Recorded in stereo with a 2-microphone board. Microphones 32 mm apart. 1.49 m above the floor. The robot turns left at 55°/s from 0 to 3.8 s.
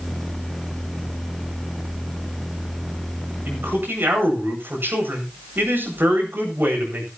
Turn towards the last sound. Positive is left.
turn(degrees=-85)